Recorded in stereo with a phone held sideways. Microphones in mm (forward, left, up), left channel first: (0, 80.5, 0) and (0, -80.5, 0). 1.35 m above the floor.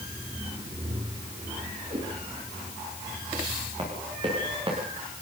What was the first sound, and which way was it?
A whoosh, 35° right (ahead or behind).